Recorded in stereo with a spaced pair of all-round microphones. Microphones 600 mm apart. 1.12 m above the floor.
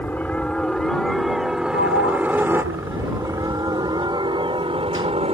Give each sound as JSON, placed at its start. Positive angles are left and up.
{"t": 0.0, "sound": "a helicopter", "side_deg": 5}
{"t": 1.7, "sound": "a sliding door", "side_deg": -20}